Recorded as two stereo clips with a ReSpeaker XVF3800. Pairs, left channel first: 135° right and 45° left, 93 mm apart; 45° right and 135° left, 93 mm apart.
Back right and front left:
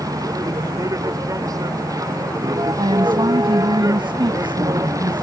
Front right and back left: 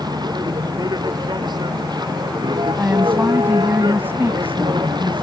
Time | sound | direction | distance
0.0 | a vehicle | 95° left | ?
2.8 | a woman speaking | 65° left | ?